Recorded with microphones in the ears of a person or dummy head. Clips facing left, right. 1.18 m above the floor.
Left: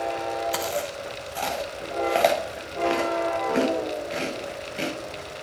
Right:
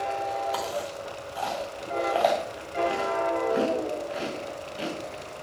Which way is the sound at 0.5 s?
35° left (ahead or behind).